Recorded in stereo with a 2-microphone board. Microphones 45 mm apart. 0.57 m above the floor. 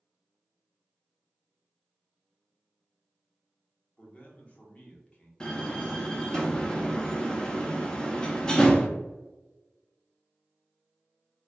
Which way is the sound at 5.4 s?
15° left (ahead or behind).